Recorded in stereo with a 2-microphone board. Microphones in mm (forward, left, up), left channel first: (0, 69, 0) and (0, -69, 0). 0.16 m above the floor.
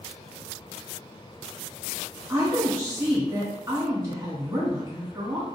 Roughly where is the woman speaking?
Right.